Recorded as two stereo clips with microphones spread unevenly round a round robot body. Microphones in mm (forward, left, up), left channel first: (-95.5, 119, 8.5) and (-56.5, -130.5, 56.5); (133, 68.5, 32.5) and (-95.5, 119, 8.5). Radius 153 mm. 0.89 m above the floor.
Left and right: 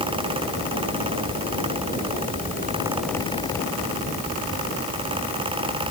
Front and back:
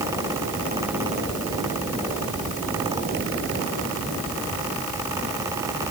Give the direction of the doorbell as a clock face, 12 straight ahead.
I don't hear a doorbell.